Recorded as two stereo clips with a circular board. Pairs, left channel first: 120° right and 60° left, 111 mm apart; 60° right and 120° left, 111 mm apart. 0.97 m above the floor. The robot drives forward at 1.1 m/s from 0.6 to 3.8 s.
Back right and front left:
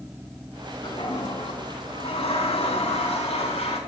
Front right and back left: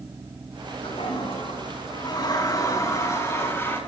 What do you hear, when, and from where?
0.8 s a toilet flushing: 80° right, 3.5 m; by 3.8 s 125° right, 4.5 m